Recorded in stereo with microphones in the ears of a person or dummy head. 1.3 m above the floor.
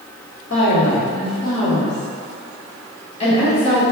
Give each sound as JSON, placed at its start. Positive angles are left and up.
{"t": 0.5, "sound": "a woman speaking", "side_deg": 65, "distance_m": 1.3}